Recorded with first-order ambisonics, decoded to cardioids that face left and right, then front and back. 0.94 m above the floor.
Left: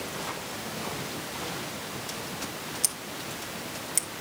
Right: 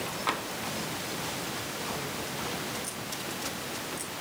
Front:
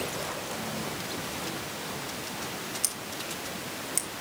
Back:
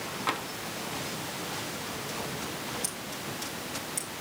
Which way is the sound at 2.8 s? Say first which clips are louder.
Left 2 dB, front 2 dB; 65° left.